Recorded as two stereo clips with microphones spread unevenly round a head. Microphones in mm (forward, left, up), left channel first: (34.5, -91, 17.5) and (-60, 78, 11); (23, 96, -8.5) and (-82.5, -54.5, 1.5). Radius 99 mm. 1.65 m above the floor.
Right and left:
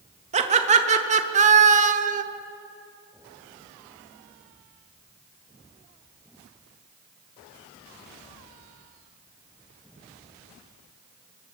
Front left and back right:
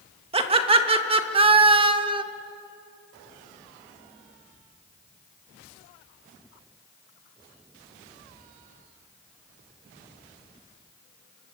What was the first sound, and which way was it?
Laughter, 175° left.